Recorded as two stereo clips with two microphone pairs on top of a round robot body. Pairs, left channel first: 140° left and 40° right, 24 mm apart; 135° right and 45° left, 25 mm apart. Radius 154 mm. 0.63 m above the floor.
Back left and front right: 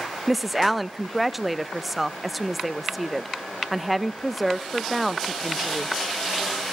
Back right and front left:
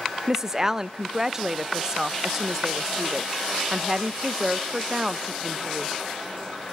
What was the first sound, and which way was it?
A woman speaking, 25° right.